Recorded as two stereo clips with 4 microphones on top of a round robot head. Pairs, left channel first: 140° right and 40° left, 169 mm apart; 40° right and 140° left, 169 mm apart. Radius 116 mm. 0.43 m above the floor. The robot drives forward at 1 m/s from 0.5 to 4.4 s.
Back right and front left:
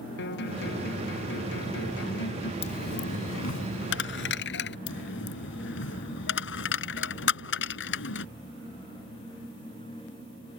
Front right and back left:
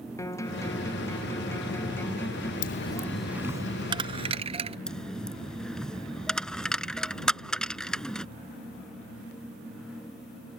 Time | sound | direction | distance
0.2 | a guitar | 115° right | ?
2.6 | a dropped coin | 80° right | ?
4.9 | a dropped coin | 125° right | ?